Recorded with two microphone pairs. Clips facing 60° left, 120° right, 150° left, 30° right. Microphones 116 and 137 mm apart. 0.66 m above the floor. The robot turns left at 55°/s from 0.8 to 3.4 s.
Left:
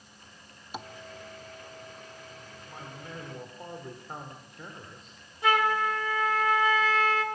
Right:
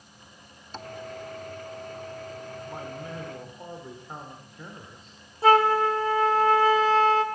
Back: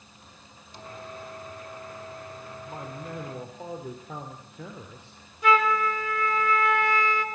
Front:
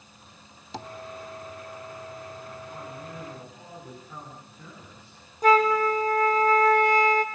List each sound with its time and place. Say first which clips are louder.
0.7 s tapping: even, front 7 dB; 15° right, 0.9 m; by 0.9 s 20° right, 0.9 m
2.7 s a man speaking: right 4 dB, back 2 dB; 165° right, 2.5 m; by 5.2 s 150° left, 2.5 m
5.4 s a flute: right 6 dB, front 3 dB; 70° right, 1.6 m